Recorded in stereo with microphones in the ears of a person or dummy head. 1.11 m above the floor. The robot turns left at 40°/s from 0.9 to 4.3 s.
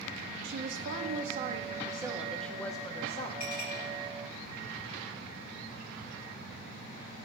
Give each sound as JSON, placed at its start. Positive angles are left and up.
{"t": 0.4, "sound": "a woman speaking", "azimuth_deg": -120, "distance_m": 1.3}
{"t": 3.4, "sound": "a clink", "side_deg": 45, "distance_m": 3.5}